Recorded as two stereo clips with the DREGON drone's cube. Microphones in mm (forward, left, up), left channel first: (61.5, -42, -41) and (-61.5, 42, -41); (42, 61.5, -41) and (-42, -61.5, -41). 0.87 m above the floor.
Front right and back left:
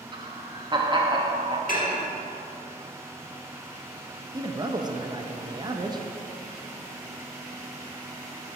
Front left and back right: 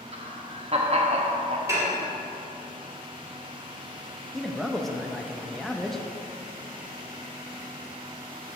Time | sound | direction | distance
0.1 | laughter | 160° right | 1.0 m
1.7 | dishes clattering | 55° right | 1.5 m
4.3 | a man speaking | 145° left | 0.5 m